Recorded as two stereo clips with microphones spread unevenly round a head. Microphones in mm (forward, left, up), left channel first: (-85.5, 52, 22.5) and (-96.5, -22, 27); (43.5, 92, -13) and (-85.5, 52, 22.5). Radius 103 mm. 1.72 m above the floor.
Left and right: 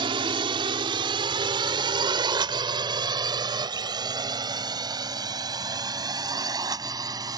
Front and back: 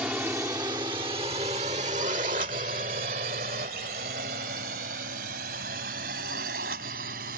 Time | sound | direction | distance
0.0 | a drone | 80° right | ?